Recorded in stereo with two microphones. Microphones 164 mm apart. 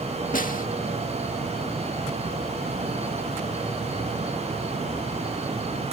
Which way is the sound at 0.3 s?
55° left (ahead or behind).